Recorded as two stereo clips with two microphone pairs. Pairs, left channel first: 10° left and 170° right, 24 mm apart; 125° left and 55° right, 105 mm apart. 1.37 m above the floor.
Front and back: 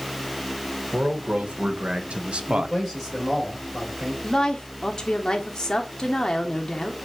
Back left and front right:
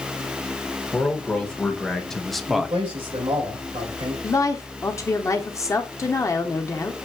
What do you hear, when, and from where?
0.9 s a man speaking: 155° right, 1.5 m; by 2.8 s 130° right, 0.5 m
2.5 s a man speaking: 85° right, 3 m
4.2 s a woman speaking: 70° left, 0.7 m